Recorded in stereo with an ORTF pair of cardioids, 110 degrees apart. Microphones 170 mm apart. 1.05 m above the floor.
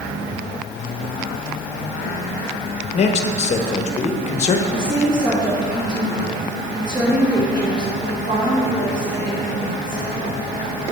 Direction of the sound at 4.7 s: 25° right.